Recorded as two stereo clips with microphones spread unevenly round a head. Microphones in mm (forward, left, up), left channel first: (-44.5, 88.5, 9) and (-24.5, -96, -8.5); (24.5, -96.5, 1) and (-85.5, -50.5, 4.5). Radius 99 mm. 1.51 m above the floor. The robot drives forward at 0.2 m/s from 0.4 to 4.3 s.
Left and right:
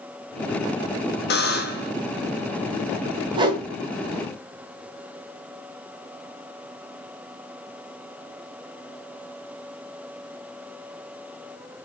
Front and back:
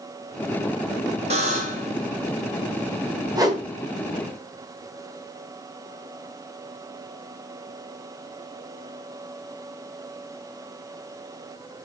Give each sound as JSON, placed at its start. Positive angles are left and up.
{"t": 1.3, "sound": "a buzzer", "azimuth_deg": 115, "distance_m": 1.4}
{"t": 3.4, "sound": "a whoosh", "azimuth_deg": -150, "distance_m": 2.5}